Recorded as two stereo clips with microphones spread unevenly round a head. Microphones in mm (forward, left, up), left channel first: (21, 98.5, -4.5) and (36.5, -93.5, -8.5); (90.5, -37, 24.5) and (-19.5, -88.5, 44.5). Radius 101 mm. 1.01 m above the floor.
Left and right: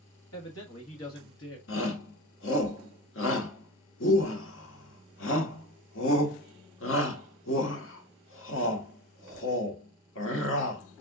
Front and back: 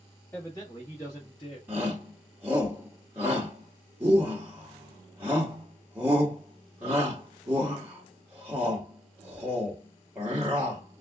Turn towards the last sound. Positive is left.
turn(degrees=125)